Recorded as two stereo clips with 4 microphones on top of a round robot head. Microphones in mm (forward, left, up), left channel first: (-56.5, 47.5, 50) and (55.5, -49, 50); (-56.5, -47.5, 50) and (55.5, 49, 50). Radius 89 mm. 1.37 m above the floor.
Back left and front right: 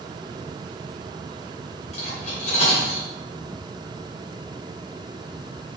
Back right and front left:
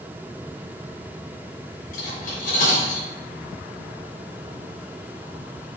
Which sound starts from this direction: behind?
Cutlery clinking, at 1.9 s.